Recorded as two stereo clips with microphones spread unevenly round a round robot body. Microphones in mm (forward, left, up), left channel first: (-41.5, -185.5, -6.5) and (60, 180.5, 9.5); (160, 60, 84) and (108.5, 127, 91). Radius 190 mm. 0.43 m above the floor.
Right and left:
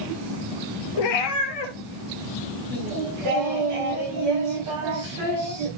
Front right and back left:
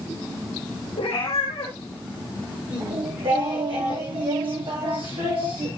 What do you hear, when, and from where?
1.0 s a cat meowing: 90° right, 1.4 m
2.7 s singing: 120° left, 6 m